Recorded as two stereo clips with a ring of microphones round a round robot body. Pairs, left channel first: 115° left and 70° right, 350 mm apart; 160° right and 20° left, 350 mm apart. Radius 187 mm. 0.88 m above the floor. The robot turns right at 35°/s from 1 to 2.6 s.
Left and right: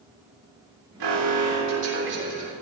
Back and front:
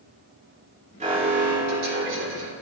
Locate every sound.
1.0 s an alarm: 50° right, 4 m; by 2.5 s 5° left, 4 m